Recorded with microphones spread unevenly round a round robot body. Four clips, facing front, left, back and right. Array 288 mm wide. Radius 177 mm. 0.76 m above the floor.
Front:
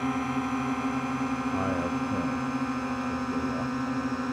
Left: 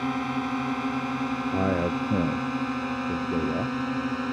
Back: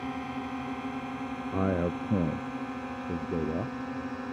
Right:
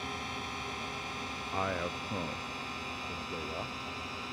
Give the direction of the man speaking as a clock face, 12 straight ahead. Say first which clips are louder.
Left 7 dB, front 1 dB; 8 o'clock.